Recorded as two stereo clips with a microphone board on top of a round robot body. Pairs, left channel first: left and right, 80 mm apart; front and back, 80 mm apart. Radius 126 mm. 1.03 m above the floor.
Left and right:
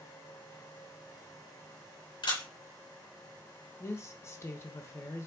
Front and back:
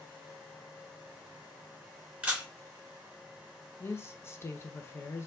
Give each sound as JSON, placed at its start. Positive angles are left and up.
{"t": 2.2, "sound": "a camera shutter", "azimuth_deg": 105, "distance_m": 2.5}
{"t": 3.8, "sound": "a woman speaking", "azimuth_deg": 45, "distance_m": 0.8}